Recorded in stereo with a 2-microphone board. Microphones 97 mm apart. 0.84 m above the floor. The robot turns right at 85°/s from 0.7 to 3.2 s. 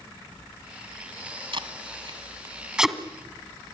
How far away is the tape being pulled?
About 1.5 m.